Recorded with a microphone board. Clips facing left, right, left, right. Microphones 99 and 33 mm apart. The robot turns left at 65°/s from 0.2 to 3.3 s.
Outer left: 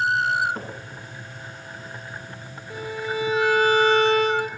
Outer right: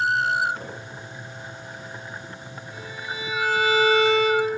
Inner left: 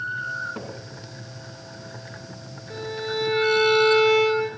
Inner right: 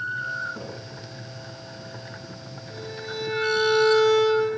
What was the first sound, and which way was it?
A cupboard door, 45° left (ahead or behind).